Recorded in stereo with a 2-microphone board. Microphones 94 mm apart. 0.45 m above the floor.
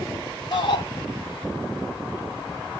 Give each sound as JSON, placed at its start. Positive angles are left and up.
{"t": 0.5, "sound": "a shout", "side_deg": 55, "distance_m": 4.0}